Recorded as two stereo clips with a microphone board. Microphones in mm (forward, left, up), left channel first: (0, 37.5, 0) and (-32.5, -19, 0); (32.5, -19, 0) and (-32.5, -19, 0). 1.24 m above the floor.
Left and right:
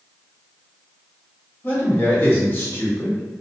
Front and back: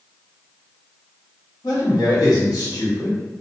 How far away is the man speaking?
About 1.3 m.